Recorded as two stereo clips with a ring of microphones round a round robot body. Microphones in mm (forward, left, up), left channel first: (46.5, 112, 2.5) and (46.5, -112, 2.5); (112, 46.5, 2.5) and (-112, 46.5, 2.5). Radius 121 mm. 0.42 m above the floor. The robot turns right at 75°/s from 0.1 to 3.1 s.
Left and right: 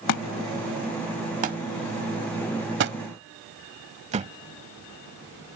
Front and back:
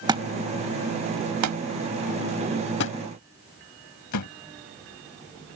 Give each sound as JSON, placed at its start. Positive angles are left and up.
{"t": 0.1, "sound": "a thud", "azimuth_deg": 105}